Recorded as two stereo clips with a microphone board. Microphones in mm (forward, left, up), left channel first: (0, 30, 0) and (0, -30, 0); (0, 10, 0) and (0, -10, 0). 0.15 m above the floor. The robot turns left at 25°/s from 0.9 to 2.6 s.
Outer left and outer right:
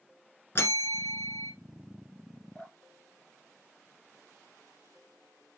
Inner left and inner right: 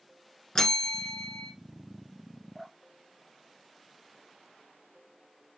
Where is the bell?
45° left (ahead or behind), 1.3 m; by 1.5 s 50° left (ahead or behind), 1.3 m.